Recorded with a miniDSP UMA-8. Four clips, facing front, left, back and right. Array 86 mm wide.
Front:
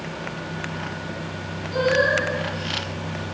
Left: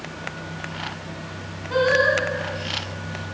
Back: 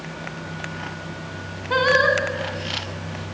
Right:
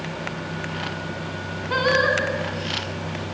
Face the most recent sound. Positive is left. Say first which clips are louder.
# left 2 dB, back 2 dB
turn(degrees=-160)